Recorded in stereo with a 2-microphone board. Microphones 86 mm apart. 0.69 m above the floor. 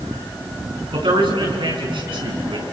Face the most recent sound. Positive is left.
turn(degrees=-75)  # may be behind; listen again after turning